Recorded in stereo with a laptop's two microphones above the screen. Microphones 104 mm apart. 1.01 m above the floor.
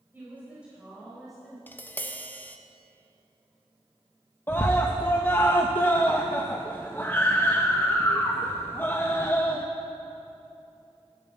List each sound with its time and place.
0.1 s a woman speaking: 20° right (ahead or behind), 4 m; by 1.6 s 5° left (ahead or behind), 4 m
1.7 s tapping: 15° left (ahead or behind), 0.9 m
4.5 s a scream: 20° left (ahead or behind), 0.7 m